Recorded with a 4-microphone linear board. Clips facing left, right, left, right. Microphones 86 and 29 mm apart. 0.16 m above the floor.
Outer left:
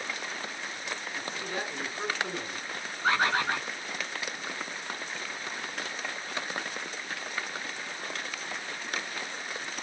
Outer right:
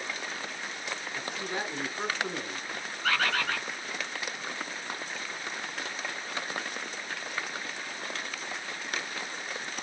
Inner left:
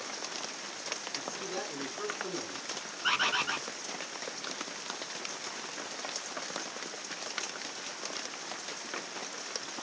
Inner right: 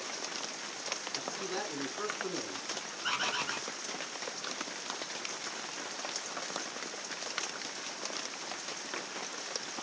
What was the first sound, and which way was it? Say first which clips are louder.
A man speaking: outer right 1 dB, inner right 1 dB; 15° right (ahead or behind).